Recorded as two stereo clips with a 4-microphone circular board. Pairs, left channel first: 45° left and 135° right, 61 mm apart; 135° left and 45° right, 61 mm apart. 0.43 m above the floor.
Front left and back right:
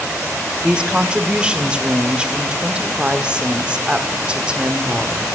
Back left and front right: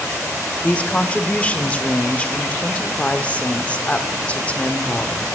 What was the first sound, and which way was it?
A woman speaking, 175° left.